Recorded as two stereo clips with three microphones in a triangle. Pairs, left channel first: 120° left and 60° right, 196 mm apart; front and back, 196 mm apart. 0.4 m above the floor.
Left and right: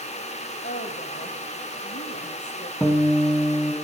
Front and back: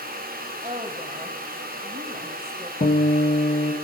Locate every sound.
0.6 s a woman speaking: 130° left, 2 m
2.8 s a guitar: 35° left, 4 m